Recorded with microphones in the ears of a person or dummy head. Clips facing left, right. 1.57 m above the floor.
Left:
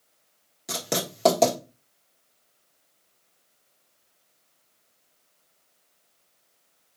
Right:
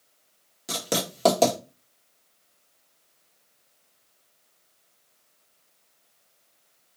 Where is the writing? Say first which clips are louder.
Right 1 dB; 5° right (ahead or behind), 1.5 m.